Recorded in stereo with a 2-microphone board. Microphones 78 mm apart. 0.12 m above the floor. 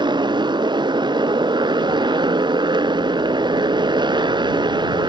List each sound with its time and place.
0.0 s a motorcycle: 75° right (ahead or behind)